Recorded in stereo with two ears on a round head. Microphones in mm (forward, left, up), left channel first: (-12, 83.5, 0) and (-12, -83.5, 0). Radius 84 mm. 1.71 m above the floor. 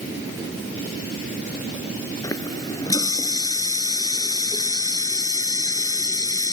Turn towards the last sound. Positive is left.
turn(degrees=20)  # may be behind; listen again after turning